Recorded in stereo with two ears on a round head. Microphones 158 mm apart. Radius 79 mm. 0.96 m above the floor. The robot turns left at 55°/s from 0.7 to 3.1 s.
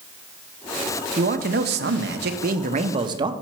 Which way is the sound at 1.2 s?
45° right.